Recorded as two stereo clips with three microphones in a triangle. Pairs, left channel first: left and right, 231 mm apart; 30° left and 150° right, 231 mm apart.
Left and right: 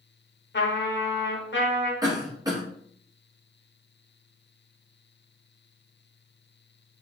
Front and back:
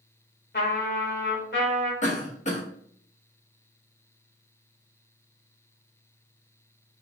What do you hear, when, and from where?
0.5 s a trumpet: 65° left, 0.8 m
2.0 s a cough: 20° right, 0.7 m